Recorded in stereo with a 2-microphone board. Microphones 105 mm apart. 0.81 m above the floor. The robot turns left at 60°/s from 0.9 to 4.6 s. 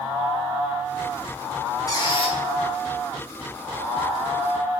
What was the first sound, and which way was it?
A squeak, 30° left (ahead or behind).